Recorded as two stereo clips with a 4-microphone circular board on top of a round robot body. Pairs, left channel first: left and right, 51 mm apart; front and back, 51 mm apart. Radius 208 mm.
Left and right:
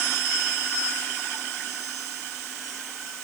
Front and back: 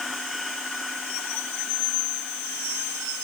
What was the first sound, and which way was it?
Only background noise.